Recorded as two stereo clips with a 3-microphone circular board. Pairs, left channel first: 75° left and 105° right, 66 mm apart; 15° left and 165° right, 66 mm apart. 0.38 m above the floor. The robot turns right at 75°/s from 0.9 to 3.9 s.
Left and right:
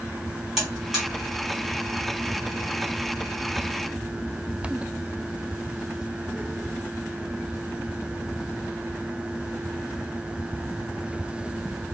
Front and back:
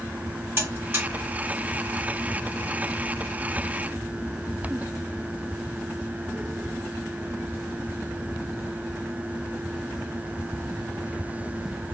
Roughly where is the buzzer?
Behind.